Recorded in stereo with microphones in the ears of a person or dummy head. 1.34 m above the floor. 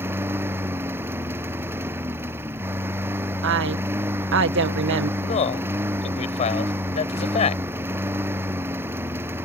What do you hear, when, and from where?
0.0 s a lawn mower: 15° right (ahead or behind)
3.4 s a woman speaking: 65° right (ahead or behind)
5.2 s a man speaking: 35° left (ahead or behind)